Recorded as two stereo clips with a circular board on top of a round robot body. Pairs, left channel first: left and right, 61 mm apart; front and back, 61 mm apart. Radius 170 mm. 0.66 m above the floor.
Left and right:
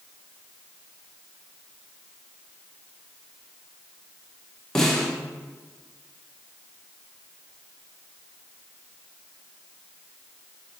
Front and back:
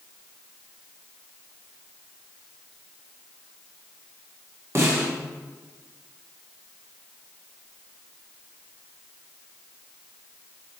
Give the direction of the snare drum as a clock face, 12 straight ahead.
6 o'clock.